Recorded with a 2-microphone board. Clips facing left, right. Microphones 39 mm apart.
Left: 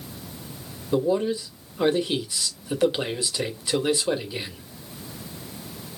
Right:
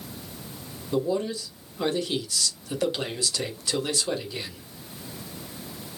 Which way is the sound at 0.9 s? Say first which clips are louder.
Left 4 dB; 20° left (ahead or behind).